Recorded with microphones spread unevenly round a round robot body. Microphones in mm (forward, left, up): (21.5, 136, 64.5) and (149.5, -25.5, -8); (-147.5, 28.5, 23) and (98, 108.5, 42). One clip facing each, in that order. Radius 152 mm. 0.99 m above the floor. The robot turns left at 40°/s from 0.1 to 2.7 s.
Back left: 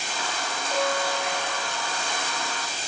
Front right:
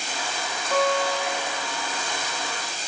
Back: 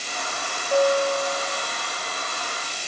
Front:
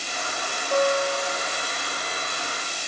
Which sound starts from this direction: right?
A guitar, at 0.7 s.